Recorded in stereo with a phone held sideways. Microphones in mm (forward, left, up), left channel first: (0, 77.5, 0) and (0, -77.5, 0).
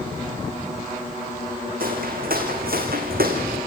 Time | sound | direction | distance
1.8 | footsteps | 70° right (ahead or behind) | 4.5 m